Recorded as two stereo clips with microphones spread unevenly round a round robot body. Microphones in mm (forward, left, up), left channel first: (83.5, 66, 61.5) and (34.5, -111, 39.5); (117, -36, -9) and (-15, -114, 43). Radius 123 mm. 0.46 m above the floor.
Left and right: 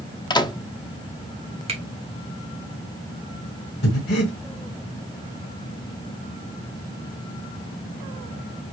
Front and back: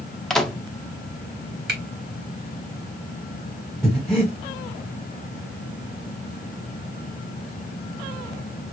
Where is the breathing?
115° left, 1.2 m.